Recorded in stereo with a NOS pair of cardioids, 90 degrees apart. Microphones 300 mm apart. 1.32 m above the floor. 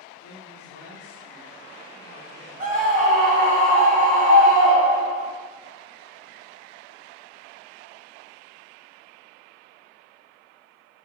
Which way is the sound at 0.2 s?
55° left.